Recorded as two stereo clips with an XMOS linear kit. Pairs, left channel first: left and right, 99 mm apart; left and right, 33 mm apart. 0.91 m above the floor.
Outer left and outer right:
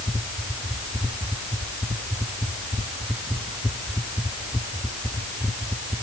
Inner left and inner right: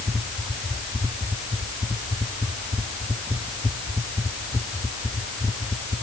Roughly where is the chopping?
I don't hear chopping.